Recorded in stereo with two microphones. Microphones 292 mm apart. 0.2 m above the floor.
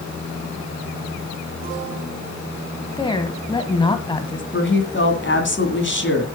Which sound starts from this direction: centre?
A woman speaking, at 3.0 s.